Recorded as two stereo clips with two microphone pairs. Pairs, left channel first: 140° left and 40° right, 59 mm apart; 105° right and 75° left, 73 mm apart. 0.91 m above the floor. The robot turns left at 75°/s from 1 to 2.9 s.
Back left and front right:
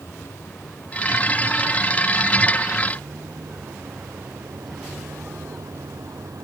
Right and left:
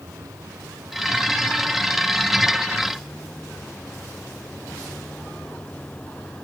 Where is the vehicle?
105° left; by 6.5 s 35° right.